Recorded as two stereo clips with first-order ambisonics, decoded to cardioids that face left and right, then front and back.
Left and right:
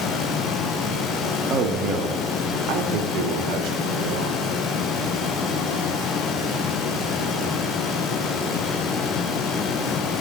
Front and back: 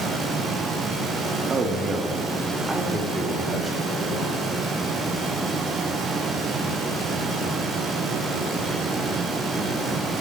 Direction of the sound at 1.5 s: 130° right.